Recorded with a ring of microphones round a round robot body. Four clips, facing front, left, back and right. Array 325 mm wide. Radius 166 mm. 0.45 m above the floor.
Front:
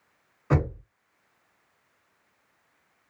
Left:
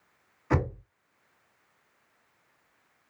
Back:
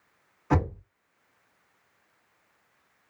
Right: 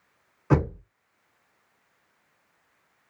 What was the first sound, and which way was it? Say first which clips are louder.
Knocking: right 5 dB, even; 60° right.